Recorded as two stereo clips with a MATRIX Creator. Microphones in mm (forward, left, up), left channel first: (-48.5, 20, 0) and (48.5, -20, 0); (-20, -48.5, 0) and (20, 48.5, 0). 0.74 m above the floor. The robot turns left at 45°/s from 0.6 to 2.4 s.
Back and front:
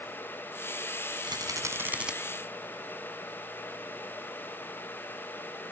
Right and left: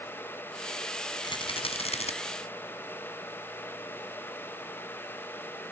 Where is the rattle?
65° right; by 2.1 s 105° right.